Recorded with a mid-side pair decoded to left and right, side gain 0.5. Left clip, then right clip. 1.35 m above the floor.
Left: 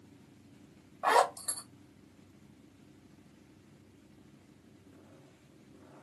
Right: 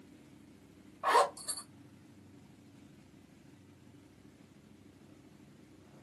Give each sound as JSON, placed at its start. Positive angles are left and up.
{"t": 1.0, "sound": "a zipper", "azimuth_deg": 45, "distance_m": 1.8}